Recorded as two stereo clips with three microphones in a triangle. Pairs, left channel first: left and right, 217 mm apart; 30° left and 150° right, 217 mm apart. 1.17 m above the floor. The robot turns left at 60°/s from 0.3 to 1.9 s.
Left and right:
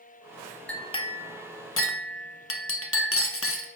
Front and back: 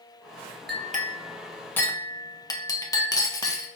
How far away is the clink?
About 0.5 m.